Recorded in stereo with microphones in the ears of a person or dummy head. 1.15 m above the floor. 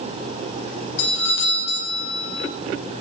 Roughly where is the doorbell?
Left.